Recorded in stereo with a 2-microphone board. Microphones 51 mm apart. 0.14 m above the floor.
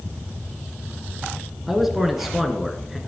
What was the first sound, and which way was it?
A man speaking, 5° right (ahead or behind).